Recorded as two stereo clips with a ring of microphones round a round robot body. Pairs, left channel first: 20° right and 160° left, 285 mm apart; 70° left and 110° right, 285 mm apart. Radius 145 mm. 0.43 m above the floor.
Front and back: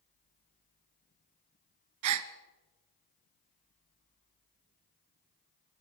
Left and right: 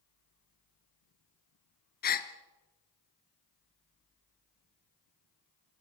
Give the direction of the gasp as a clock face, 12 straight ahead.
8 o'clock.